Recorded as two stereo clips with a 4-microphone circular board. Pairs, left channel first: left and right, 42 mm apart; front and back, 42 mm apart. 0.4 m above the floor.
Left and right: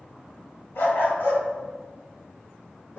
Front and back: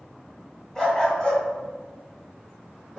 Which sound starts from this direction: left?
A dog barking, at 0.8 s.